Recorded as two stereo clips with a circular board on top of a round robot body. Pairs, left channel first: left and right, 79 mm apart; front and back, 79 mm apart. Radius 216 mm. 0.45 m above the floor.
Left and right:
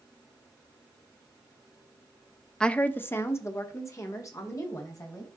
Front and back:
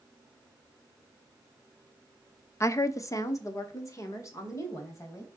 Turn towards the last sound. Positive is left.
turn(degrees=45)